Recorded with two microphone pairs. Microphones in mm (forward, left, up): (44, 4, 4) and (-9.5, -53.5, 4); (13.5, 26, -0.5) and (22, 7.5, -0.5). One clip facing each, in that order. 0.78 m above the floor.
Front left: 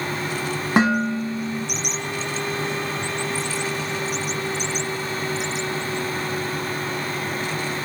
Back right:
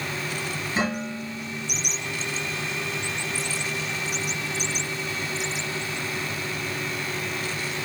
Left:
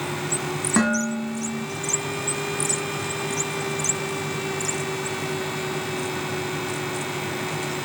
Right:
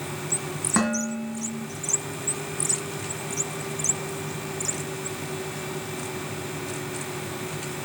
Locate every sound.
0.8 s dishes clattering: 25° left, 5 m